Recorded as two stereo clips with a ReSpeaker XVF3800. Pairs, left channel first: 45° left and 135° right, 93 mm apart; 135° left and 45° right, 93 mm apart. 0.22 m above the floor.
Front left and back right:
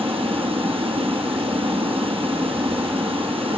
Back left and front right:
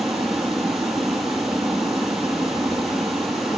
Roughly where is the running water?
Behind right.